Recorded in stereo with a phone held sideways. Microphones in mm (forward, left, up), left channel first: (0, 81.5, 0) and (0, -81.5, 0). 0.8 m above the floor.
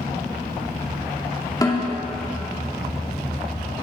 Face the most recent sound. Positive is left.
turn(degrees=20)  # may be behind; listen again after turning